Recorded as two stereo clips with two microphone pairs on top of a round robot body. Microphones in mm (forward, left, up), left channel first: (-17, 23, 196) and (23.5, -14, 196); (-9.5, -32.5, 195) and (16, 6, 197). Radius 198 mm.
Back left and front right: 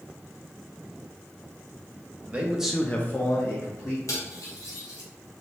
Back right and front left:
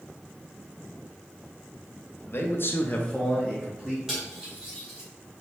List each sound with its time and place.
2.3 s a man speaking: 100° right, 1.1 m; by 4.0 s 130° left, 1.6 m
4.1 s cutlery clinking: 135° left, 1.5 m